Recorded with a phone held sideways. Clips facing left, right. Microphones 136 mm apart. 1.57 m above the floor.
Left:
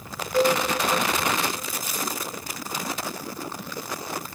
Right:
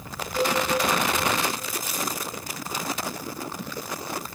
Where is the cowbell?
60° left (ahead or behind), 2 m.